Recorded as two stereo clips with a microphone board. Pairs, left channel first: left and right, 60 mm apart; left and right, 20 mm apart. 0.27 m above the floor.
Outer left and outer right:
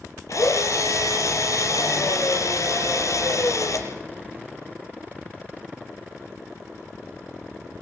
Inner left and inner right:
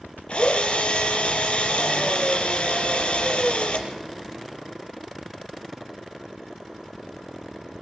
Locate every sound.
0.3 s a drill: 60° left (ahead or behind), 5 m